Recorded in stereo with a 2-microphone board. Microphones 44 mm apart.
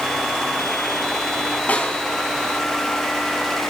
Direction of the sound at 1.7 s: 35° left (ahead or behind).